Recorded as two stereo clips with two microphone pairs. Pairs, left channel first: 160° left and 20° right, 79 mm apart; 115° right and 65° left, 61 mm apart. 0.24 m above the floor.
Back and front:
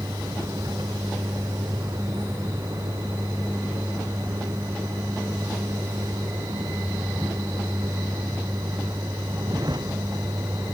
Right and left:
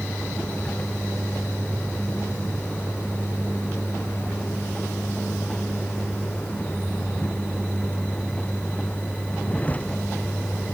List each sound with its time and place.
0.0 s a vehicle: 50° right